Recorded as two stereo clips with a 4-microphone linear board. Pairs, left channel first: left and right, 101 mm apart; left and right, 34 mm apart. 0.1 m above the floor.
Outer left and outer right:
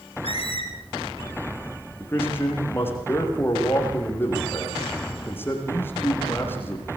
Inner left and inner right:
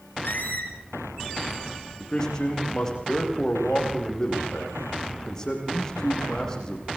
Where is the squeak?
70° left (ahead or behind), 3 m.